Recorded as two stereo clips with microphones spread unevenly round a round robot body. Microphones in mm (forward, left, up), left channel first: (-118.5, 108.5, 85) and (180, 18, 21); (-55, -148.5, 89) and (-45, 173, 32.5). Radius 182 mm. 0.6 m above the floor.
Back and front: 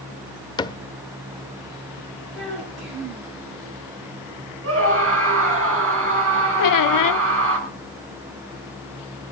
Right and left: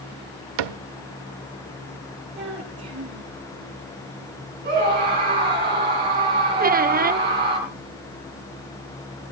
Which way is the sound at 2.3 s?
35° left.